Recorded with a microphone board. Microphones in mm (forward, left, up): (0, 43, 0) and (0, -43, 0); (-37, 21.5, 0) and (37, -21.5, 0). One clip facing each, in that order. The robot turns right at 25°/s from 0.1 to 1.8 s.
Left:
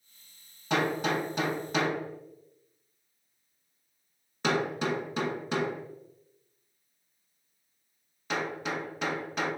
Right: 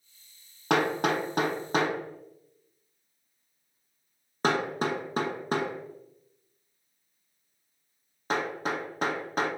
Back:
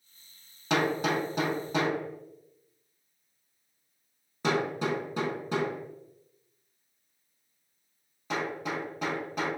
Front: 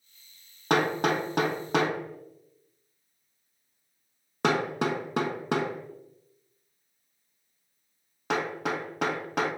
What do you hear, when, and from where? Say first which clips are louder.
0.7 s hammering: right 3 dB, front 2 dB; 70° right, 0.6 m; by 9.5 s 40° right, 0.6 m